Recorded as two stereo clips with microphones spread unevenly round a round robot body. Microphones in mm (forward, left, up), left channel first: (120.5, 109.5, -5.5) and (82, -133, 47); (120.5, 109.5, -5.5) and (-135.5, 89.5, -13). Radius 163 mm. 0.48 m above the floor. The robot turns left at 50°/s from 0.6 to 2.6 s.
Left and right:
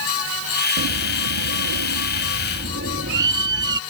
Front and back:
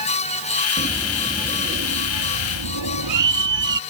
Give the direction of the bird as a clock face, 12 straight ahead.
2 o'clock.